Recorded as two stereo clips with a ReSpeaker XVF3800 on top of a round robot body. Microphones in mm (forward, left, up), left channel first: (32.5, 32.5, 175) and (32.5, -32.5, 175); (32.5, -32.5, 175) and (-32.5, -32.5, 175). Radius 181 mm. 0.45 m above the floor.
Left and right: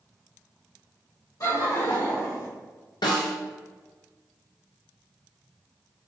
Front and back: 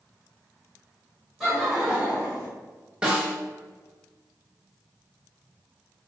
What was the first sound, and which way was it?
Laughter, 95° left.